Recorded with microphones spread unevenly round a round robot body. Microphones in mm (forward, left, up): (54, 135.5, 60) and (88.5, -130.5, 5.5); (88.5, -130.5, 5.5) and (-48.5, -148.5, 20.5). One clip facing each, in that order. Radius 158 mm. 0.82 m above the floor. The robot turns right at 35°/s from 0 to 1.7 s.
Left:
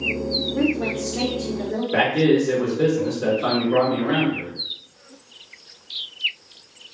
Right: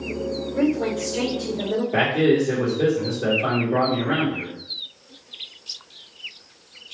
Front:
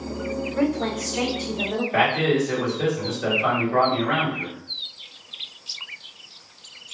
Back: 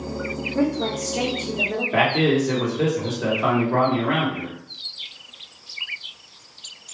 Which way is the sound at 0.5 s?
150° left.